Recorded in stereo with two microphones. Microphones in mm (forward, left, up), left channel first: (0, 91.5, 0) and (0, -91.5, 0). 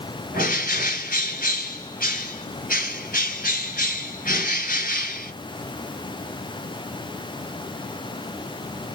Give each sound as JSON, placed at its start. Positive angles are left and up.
{"t": 0.3, "sound": "a bird", "side_deg": 50, "distance_m": 1.9}